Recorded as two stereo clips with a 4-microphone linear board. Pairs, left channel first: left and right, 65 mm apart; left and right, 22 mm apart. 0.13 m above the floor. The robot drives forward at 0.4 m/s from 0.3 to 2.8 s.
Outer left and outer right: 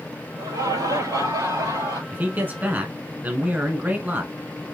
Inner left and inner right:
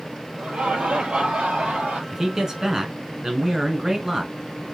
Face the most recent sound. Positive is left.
turn(degrees=-25)  # may be behind; listen again after turning